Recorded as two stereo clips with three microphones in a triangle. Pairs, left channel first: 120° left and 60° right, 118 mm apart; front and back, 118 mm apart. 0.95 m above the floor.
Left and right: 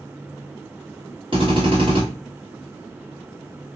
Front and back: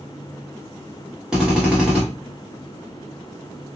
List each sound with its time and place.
1.3 s a drill: 95° right, 1.4 m